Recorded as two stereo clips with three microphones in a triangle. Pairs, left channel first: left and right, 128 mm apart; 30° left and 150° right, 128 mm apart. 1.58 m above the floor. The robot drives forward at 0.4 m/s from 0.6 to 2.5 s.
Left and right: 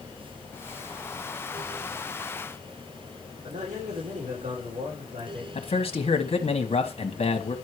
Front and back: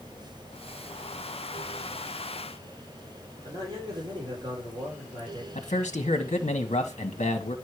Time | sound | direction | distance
3.4 | a man speaking | 95° right | 4.5 m
5.5 | a man speaking | 60° left | 1.3 m